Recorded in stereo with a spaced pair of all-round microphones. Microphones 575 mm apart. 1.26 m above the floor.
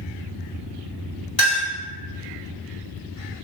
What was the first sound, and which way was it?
A clink, 65° left (ahead or behind).